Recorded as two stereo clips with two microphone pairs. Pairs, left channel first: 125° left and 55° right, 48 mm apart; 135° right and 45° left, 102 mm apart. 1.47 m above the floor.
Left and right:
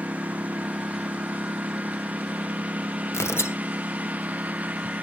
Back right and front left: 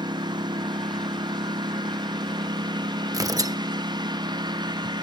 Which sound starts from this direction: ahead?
A lawn mower, at 0.0 s.